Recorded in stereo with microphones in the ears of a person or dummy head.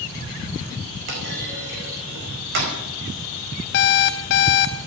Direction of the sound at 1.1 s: 55° right (ahead or behind).